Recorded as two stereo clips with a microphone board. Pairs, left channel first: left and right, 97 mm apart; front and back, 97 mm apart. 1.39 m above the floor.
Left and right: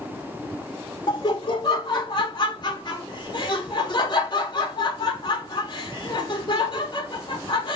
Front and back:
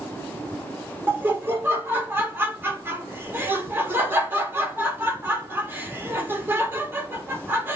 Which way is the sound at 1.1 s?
115° left.